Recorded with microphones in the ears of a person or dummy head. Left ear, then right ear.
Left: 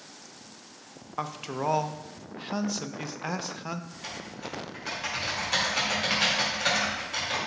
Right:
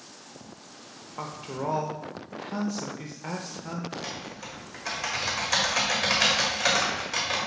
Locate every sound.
1.2 s a man speaking: 30° left (ahead or behind), 0.6 m
3.9 s typing on a keyboard: 25° right (ahead or behind), 1.8 m